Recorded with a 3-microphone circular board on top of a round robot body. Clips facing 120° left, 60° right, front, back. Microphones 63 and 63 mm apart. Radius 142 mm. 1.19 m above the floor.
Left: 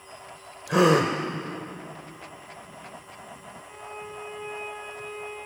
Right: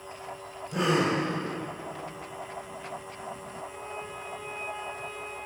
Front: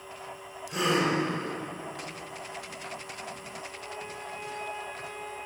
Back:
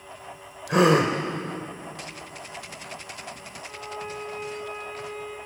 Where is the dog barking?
I don't hear a dog barking.